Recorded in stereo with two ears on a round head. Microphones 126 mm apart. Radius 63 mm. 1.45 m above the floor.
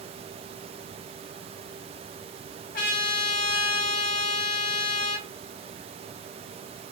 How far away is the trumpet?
About 1.6 m.